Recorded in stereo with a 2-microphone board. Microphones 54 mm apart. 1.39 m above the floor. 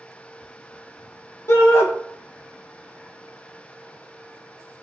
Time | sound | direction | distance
1.5 | a shout | 60° left (ahead or behind) | 0.8 m